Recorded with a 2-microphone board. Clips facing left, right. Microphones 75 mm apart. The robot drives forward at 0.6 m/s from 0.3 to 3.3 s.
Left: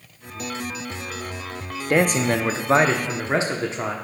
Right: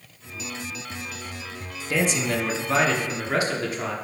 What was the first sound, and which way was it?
A man speaking, 55° left (ahead or behind).